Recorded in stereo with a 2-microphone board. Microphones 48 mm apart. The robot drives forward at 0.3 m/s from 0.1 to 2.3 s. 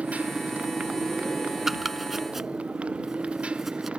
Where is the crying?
No crying in this recording.